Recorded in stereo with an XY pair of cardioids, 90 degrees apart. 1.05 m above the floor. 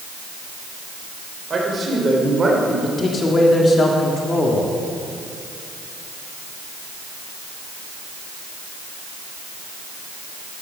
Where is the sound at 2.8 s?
45° left, 1.9 m.